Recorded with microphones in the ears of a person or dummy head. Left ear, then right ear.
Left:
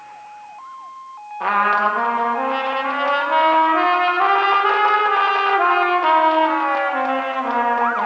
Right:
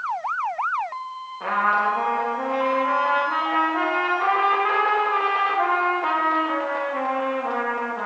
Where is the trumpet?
20° left (ahead or behind), 0.8 m.